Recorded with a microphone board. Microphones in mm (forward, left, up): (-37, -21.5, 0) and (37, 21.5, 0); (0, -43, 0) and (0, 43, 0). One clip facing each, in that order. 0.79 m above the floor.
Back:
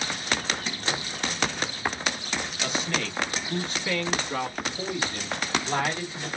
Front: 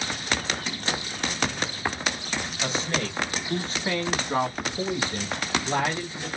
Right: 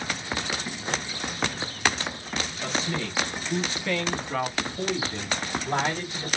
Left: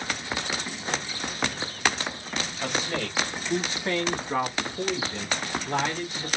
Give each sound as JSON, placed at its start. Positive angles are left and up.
{"t": 2.6, "sound": "a man speaking", "azimuth_deg": 80, "distance_m": 1.5}